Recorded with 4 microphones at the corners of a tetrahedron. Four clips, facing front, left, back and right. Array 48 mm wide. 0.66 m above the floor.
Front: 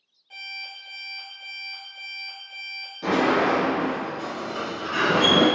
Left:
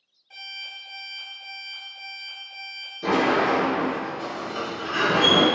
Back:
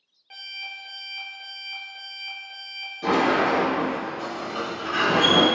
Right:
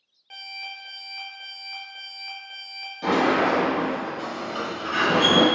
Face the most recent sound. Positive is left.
turn(degrees=-95)